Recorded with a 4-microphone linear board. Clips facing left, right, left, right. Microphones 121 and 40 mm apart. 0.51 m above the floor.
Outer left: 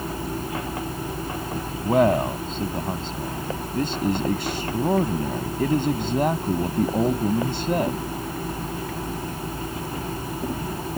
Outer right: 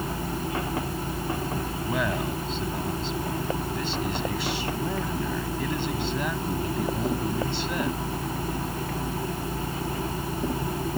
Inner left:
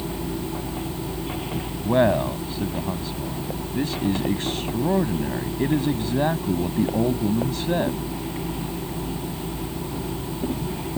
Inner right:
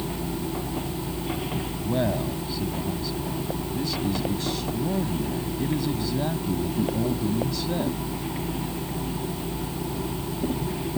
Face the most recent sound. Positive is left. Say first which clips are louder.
# outer left 11 dB, inner left 7 dB
turn(degrees=45)  # may be behind; listen again after turning